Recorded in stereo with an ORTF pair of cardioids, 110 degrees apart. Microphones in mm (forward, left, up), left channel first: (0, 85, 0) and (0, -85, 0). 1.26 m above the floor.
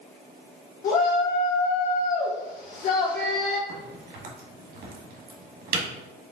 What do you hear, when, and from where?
0.8 s a shout: 65° left, 1.1 m
3.7 s a crack: 60° right, 1.4 m